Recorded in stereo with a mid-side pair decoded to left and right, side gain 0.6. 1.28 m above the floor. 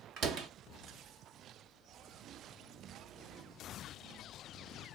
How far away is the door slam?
About 0.8 m.